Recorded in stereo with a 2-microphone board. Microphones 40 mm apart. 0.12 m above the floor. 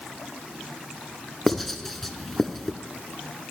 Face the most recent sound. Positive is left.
turn(degrees=5)  # may be behind; listen again after turning